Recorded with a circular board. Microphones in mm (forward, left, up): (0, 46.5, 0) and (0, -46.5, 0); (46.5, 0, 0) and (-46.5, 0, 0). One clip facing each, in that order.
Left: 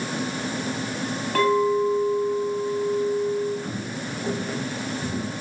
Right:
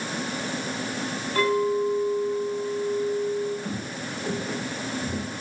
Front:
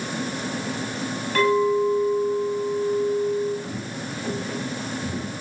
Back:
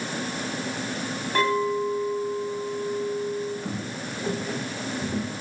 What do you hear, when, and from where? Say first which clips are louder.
1.4 s a clink: left 3 dB, front 4 dB; 115° left, 7.5 m
3.6 s footsteps: left 1 dB, front 1 dB; 175° left, 8 m; by 5.3 s straight behind, 7 m